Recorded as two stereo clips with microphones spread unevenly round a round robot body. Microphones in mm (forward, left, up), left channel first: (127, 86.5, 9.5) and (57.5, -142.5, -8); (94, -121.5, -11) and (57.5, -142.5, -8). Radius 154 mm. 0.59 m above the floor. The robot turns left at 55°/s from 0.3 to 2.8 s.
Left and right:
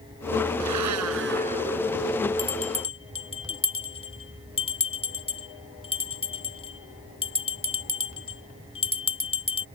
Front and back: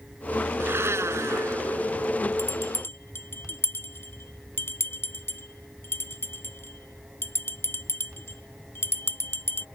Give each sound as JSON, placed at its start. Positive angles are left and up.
{"t": 0.6, "sound": "a blender", "azimuth_deg": -130}
{"t": 2.4, "sound": "a bell", "azimuth_deg": 30}